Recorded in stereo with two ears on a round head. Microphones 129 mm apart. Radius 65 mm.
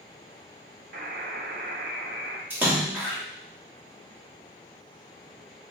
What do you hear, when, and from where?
0.9 s a buzzer: 70° right (ahead or behind), 0.7 m
2.5 s a splash: 15° right (ahead or behind), 1.1 m